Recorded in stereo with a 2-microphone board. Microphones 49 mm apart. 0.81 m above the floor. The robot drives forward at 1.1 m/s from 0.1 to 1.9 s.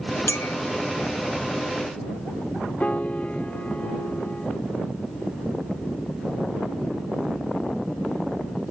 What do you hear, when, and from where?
0.3 s a clink: 70° left (ahead or behind); by 0.6 s 50° left (ahead or behind)
2.8 s a piano: 30° left (ahead or behind)